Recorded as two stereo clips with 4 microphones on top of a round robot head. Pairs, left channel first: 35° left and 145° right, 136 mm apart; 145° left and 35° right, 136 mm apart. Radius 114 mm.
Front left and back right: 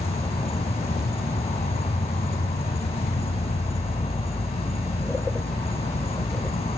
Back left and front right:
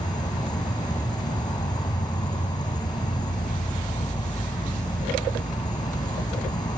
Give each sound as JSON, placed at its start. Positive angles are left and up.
{"t": 0.0, "sound": "an insect", "azimuth_deg": 85}